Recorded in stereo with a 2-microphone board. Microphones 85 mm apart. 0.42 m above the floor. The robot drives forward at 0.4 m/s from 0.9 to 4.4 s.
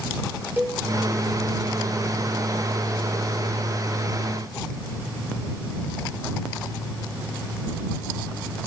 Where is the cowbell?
20° right (ahead or behind), 4 m.